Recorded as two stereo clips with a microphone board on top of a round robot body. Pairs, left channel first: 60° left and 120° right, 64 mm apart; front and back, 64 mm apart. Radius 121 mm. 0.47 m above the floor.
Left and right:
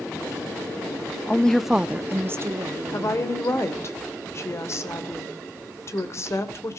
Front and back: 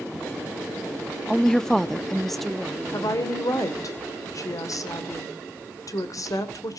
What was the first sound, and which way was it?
A woman speaking, 65° left.